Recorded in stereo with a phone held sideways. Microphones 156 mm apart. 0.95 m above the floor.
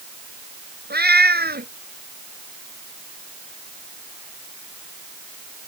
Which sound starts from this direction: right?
A cat meowing, at 0.9 s.